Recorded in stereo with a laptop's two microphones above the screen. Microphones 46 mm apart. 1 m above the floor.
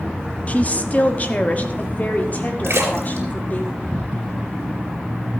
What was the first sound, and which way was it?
A woman speaking, 30° left (ahead or behind).